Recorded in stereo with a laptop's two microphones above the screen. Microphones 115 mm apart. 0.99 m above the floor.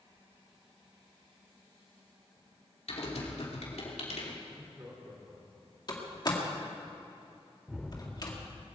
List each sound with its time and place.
2.9 s typing on a keyboard: 75° left (ahead or behind), 2.5 m
4.5 s laughter: 35° right (ahead or behind), 3 m
5.9 s a door slam: 40° left (ahead or behind), 1.8 m
7.7 s a gunshot: centre (ahead or behind), 0.7 m